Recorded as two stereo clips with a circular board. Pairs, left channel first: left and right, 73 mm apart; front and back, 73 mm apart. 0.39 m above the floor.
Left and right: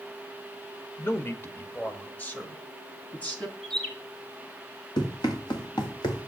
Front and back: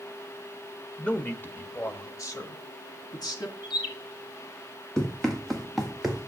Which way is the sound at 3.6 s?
5° left.